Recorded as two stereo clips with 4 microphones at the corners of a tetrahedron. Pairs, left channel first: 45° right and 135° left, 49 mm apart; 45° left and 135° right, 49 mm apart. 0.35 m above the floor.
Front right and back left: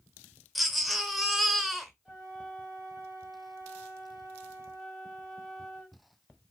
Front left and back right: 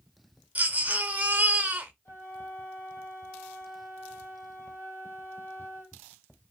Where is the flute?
60° left, 1.6 m.